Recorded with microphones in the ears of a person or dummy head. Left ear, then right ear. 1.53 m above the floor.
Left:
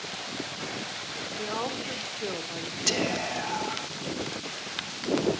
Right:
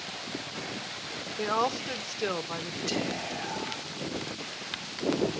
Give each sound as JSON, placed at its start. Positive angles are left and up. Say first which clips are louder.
{"t": 1.4, "sound": "a woman speaking", "louder": "right 5 dB", "side_deg": -70, "distance_m": 1.3}
{"t": 2.9, "sound": "whispering", "louder": "left 6 dB", "side_deg": 80, "distance_m": 2.5}